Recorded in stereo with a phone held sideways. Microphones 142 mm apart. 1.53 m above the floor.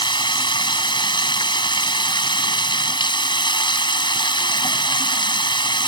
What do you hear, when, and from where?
0.0 s running water: 35° left (ahead or behind)